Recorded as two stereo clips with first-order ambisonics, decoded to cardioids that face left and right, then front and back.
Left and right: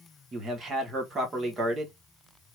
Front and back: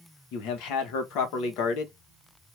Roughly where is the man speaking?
Ahead.